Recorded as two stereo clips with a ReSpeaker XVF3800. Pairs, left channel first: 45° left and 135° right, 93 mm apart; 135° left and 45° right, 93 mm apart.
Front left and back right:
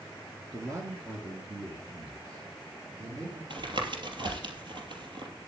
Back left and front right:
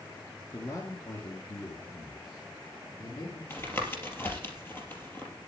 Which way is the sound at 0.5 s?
Straight behind.